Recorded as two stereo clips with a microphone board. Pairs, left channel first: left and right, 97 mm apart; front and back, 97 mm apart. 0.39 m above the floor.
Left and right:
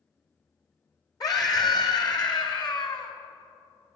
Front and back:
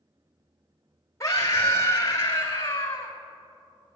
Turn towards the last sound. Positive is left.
turn(degrees=60)